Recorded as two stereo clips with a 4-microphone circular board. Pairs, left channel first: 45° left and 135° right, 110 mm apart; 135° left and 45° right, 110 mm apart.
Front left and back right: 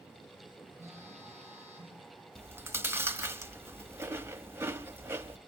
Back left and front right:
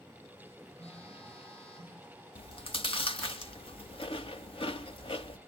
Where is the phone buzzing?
160° left, 9 m.